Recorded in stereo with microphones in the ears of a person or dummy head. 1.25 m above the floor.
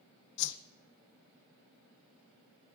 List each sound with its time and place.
0.4 s a whoosh: 60° left (ahead or behind), 0.5 m